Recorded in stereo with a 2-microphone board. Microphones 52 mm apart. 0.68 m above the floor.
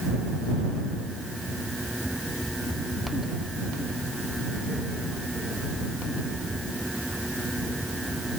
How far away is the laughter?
I don't hear laughter.